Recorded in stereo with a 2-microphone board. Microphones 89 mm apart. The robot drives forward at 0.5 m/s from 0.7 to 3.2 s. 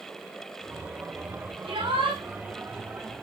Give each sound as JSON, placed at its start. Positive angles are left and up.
{"t": 1.6, "sound": "a shout", "side_deg": -65, "distance_m": 9.5}